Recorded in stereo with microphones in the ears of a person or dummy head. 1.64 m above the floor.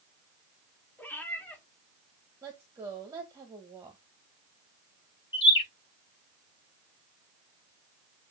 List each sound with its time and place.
1.0 s a cat meowing: 10° left (ahead or behind), 1.7 m
2.4 s a woman speaking: 20° right (ahead or behind), 1.4 m
5.3 s a bird: 20° left (ahead or behind), 1.4 m